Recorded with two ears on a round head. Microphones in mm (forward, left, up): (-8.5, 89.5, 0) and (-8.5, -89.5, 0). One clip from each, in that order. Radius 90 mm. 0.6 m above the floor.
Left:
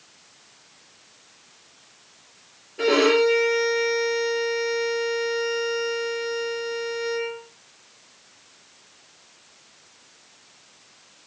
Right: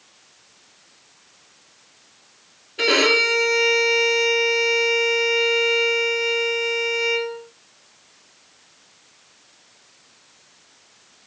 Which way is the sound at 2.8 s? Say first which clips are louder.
Right 2 dB; 75° right (ahead or behind).